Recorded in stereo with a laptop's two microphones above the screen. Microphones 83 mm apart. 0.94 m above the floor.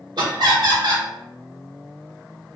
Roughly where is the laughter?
Right.